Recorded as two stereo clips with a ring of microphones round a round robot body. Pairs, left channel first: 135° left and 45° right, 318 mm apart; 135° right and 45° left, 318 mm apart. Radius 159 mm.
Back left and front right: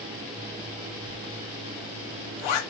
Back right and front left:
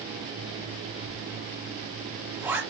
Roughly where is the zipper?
Behind left.